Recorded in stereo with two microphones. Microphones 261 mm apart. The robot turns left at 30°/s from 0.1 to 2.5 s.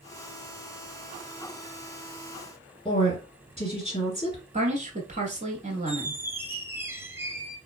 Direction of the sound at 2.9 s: 20° left (ahead or behind).